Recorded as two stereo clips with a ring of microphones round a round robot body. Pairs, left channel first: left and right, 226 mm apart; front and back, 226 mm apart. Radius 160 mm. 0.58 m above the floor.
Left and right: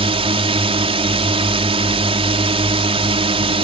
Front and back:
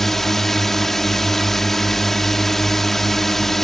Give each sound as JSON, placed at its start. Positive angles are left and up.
{"t": 0.0, "sound": "a drone", "azimuth_deg": -85}